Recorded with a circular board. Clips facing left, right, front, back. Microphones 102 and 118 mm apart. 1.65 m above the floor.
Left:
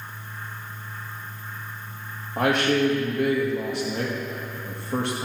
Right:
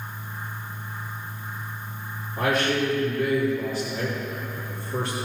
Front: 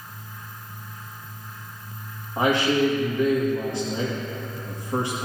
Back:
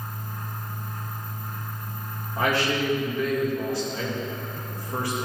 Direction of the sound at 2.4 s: 65° left.